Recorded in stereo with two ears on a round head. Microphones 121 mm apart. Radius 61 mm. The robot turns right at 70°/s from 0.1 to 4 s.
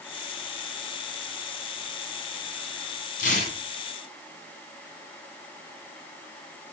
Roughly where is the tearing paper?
Left.